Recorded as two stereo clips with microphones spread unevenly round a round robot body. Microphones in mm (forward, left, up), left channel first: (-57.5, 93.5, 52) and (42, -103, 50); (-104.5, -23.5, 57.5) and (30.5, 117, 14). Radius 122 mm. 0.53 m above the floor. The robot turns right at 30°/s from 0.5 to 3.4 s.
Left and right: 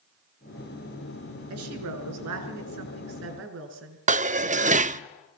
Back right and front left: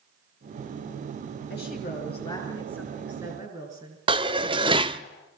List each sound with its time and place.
1.5 s a woman speaking: 85° right, 6.5 m; by 5.1 s 30° right, 6.5 m
4.1 s dishes clattering: 10° right, 0.6 m